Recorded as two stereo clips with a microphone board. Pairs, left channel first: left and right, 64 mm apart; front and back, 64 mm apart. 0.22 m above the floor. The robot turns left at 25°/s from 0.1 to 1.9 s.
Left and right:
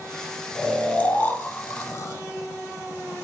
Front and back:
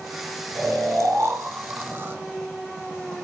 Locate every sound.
0.6 s snoring: 165° left, 0.5 m; by 3.2 s 130° left, 0.5 m